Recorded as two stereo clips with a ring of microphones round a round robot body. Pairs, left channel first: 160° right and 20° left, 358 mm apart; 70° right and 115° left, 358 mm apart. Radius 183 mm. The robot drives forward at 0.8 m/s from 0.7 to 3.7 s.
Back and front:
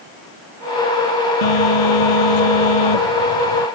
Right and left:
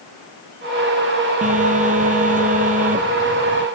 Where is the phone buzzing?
175° right.